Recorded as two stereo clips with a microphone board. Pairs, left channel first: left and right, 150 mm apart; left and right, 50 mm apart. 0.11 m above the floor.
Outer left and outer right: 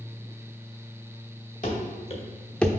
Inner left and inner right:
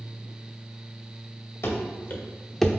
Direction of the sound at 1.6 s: 55° left (ahead or behind).